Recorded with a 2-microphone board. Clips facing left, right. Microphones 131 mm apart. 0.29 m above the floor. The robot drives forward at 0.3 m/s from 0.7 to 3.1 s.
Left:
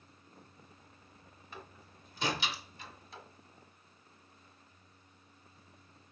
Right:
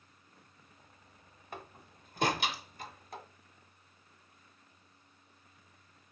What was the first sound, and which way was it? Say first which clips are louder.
A door slam: right 4 dB; 60° right (ahead or behind).